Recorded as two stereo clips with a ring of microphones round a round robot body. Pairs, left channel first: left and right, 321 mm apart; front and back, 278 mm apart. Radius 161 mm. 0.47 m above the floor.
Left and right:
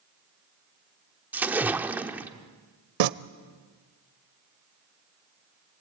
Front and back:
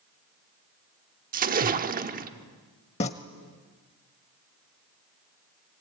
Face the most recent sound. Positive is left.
turn(degrees=-70)